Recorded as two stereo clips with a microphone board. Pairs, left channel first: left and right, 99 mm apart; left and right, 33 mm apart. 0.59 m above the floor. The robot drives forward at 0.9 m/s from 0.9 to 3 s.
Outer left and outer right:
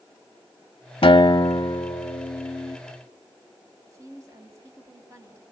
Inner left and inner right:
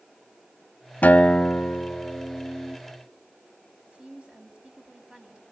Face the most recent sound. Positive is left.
turn(degrees=-30)  # may be behind; listen again after turning